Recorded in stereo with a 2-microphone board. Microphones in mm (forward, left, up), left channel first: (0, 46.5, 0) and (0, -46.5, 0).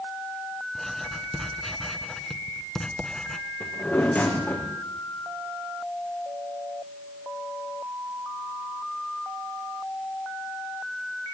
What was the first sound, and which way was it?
Writing, 5° left (ahead or behind).